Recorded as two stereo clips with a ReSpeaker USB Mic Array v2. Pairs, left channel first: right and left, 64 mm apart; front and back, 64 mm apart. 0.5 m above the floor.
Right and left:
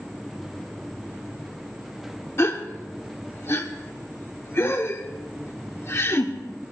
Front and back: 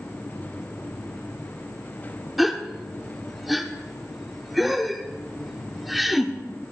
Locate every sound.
2.4 s a gasp: 90° right, 0.8 m